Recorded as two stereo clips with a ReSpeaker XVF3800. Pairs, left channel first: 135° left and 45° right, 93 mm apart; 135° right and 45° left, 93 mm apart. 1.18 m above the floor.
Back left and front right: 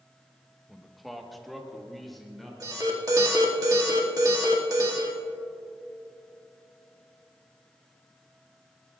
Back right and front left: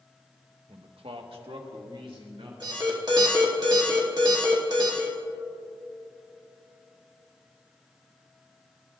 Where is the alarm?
5° left, 2 m.